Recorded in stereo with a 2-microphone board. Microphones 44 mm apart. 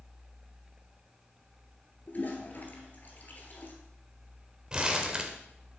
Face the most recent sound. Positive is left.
turn(degrees=-20)  # may be behind; listen again after turning